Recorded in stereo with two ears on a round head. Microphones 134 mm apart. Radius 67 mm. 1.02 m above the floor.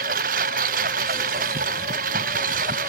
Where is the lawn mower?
60° right (ahead or behind).